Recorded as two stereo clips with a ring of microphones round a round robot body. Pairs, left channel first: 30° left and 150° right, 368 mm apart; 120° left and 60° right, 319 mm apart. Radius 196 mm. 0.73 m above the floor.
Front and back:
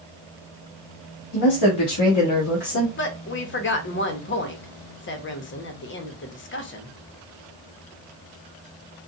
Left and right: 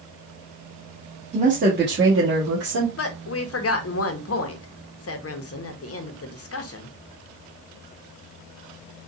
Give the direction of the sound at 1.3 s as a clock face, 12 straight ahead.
12 o'clock.